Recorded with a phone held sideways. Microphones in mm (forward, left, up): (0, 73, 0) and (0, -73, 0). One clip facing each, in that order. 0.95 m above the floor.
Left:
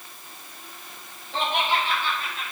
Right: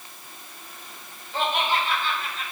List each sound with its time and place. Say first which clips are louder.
1.3 s laughter: even; 75° left (ahead or behind), 3 m; by 2.5 s 70° left (ahead or behind), 4 m